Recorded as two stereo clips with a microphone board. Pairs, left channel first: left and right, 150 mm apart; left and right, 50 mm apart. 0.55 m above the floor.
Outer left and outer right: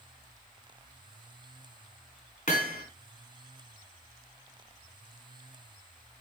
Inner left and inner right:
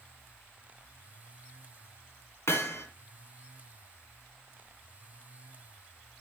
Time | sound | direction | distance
2.5 | hammering | 60° left (ahead or behind) | 1.8 m